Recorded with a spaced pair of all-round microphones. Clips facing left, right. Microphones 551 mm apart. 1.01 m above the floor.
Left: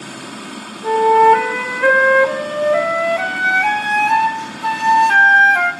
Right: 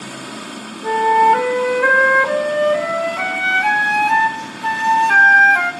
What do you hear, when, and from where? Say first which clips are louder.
0.8 s a flute: left 5 dB; centre (ahead or behind), 0.6 m